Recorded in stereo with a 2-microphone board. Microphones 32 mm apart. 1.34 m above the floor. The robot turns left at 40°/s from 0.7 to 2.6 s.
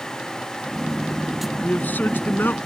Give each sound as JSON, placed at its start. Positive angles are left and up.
{"t": 1.6, "sound": "a man speaking", "azimuth_deg": 115}